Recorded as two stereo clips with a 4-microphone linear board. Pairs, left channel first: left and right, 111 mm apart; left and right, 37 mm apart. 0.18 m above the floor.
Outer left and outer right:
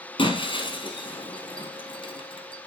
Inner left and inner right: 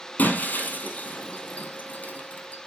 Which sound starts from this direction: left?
Breaking glass, at 0.2 s.